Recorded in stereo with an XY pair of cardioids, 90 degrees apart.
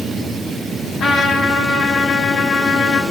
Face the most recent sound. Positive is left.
turn(degrees=65)